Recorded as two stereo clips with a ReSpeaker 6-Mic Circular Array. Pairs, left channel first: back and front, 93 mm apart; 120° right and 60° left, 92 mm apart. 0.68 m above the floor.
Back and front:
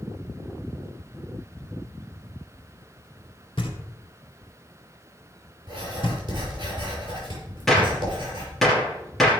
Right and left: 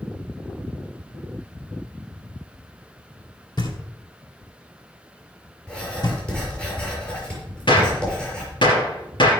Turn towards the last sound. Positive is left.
turn(degrees=-90)